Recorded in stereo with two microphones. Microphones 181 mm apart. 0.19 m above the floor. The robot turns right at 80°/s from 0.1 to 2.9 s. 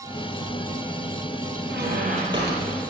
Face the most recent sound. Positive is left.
turn(degrees=20)